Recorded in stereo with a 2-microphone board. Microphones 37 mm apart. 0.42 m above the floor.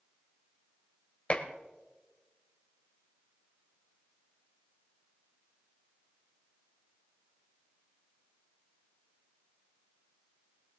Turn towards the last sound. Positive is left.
turn(degrees=35)  # may be behind; listen again after turning